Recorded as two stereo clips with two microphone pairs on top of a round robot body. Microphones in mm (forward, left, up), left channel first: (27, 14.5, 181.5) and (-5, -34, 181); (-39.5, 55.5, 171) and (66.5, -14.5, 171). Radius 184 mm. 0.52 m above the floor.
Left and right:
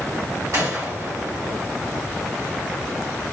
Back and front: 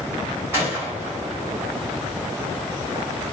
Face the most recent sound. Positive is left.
turn(degrees=-105)